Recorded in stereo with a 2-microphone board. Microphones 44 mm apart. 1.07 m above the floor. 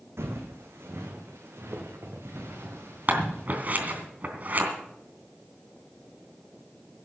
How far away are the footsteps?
About 3 m.